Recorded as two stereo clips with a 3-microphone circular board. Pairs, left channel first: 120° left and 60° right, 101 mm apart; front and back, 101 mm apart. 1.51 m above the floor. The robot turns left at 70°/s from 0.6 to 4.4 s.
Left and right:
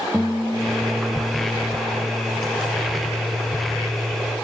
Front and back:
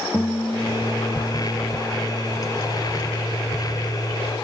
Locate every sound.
0.1 s a guitar: straight ahead, 1.0 m; by 2.6 s 140° right, 1.0 m